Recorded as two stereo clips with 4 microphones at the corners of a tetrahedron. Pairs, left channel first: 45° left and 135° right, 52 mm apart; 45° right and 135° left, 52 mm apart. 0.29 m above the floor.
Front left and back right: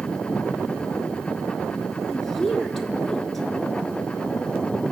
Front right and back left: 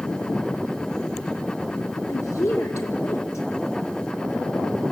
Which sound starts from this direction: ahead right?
A woman speaking, at 2.1 s.